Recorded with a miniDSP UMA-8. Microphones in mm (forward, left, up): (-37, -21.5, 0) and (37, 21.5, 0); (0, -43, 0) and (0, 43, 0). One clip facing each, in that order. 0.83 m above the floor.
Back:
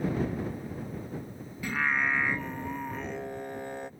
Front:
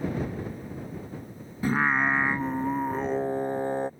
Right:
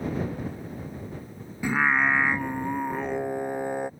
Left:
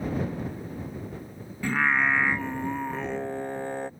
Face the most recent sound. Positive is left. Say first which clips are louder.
# front 5 dB, right 1 dB
turn(degrees=-15)